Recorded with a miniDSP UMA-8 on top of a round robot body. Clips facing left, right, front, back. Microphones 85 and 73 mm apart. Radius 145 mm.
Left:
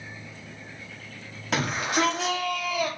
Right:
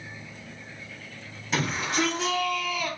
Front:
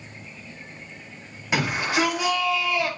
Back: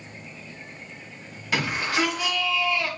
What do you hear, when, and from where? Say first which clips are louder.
1.5 s a shout: left 2 dB, front 2 dB; 70° left, 5.5 m